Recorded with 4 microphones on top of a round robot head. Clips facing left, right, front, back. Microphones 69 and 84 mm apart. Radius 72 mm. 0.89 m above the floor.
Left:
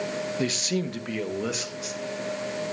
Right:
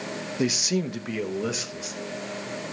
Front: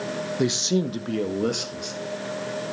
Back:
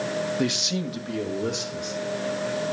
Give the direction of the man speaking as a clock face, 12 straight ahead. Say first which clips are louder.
Right 5 dB, front 3 dB; 1 o'clock.